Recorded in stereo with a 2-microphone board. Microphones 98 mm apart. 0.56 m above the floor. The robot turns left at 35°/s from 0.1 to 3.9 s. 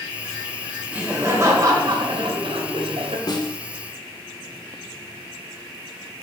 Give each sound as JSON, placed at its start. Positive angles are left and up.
{"t": 0.9, "sound": "laughter", "azimuth_deg": -10, "distance_m": 2.5}
{"t": 3.3, "sound": "a snare drum", "side_deg": 45, "distance_m": 1.2}